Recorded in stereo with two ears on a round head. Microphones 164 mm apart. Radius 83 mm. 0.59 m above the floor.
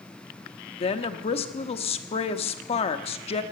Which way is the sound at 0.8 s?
35° left (ahead or behind).